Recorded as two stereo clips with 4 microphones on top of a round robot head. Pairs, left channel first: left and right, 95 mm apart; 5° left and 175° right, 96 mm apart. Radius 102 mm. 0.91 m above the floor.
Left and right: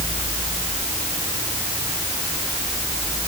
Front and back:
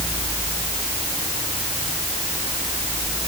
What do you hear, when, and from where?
Only background noise.